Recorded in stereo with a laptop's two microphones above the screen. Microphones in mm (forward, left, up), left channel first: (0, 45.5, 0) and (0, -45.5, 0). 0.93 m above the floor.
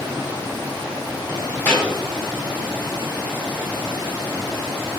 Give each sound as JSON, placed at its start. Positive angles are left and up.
{"t": 1.6, "sound": "a thud", "side_deg": 25, "distance_m": 2.5}